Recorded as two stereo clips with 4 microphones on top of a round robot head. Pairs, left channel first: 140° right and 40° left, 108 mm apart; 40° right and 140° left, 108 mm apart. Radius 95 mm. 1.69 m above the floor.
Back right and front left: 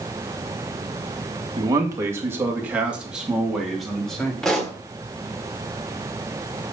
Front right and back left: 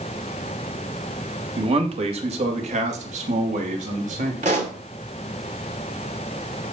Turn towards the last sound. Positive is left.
turn(degrees=135)